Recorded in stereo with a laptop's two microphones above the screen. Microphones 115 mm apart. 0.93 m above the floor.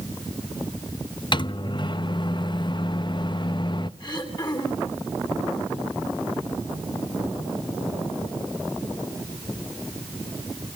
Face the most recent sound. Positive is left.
turn(degrees=40)  # may be behind; listen again after turning